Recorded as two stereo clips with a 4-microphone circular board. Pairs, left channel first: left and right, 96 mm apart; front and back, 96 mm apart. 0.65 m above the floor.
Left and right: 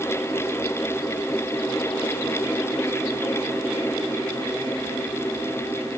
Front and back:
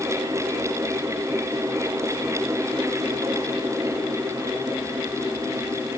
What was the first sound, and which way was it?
Only background noise.